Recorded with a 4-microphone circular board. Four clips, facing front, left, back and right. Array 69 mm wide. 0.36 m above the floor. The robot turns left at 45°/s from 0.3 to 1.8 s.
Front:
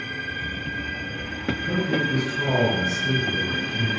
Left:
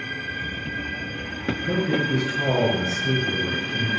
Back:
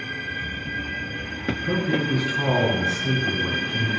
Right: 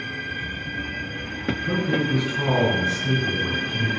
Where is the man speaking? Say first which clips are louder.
Even, back 1 dB; 135° right, 3.5 m; by 3.9 s 140° right, 3.5 m.